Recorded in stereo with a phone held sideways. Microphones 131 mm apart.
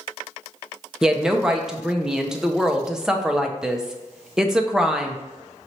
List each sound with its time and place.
1.0 s a woman speaking: 5° right (ahead or behind), 0.6 m